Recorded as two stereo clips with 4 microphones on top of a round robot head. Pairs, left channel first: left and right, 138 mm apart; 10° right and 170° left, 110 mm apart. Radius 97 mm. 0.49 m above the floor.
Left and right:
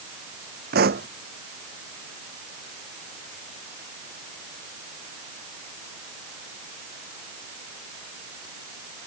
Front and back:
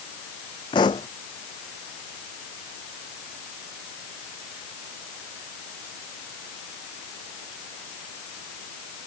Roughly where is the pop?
Right.